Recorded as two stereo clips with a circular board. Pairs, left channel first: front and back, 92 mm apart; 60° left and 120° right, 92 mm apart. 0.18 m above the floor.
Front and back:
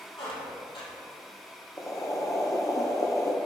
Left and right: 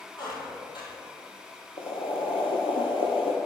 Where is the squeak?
25° left, 2 m.